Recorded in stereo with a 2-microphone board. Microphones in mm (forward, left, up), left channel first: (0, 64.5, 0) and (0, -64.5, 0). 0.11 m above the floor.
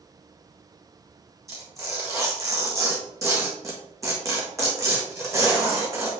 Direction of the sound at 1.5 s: 25° right (ahead or behind).